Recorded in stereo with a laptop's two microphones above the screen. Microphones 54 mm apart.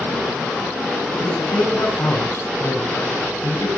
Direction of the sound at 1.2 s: 55° left (ahead or behind).